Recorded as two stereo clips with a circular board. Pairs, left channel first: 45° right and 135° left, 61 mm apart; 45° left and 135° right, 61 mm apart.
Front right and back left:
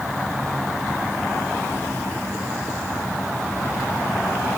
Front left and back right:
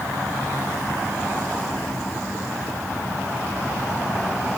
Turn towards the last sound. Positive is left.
No sound to turn to.